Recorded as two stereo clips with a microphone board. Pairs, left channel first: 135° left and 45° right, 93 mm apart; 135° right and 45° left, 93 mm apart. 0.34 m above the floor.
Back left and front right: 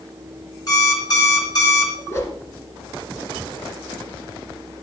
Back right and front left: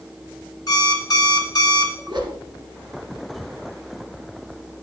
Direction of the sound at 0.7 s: Straight behind.